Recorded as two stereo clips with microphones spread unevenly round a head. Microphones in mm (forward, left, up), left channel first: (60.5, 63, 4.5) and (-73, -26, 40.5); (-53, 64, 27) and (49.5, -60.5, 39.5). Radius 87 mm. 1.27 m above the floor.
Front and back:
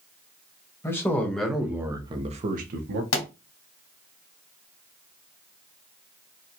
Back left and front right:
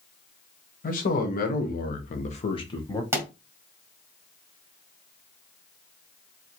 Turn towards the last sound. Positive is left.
turn(degrees=20)